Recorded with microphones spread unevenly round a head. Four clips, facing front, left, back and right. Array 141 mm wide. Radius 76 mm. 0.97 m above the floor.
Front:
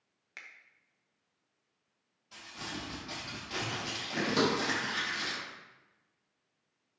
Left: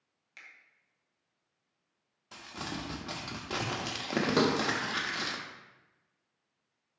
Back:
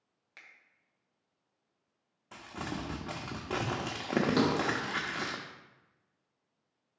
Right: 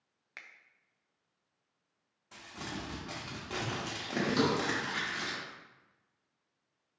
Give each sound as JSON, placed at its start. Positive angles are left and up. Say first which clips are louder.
{"t": 0.4, "sound": "a finger snap", "louder": "right 2 dB, front 5 dB", "azimuth_deg": -60, "distance_m": 0.9}
{"t": 2.3, "sound": "crumpling", "louder": "left 2 dB, back 4 dB", "azimuth_deg": 160, "distance_m": 0.7}
{"t": 4.4, "sound": "a thud", "louder": "left 2 dB, back 1 dB", "azimuth_deg": 85, "distance_m": 1.7}